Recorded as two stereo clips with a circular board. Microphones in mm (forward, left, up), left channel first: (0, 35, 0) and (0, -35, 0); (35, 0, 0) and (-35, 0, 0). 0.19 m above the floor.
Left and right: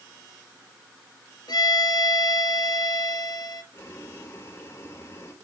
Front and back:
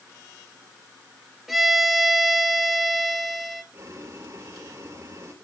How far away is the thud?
No thud in this recording.